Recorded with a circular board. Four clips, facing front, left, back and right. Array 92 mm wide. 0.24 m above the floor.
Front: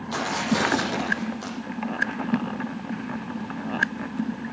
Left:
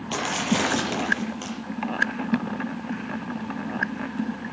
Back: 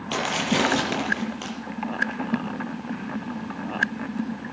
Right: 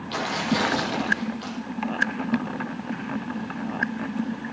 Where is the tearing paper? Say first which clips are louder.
Even, back 1 dB; 160° left, 6 m.